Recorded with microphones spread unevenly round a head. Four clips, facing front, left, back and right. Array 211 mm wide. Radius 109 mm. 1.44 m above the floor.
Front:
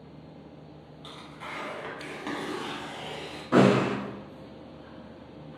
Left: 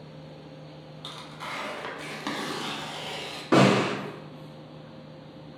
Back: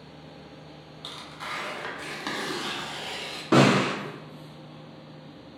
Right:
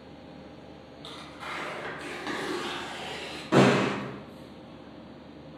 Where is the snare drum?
155° left, 1.3 m.